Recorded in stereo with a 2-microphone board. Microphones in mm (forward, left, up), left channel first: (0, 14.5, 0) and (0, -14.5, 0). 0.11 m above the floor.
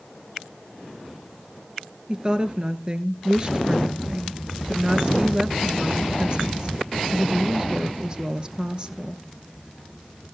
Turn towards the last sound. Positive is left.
turn(degrees=-30)  # may be behind; listen again after turning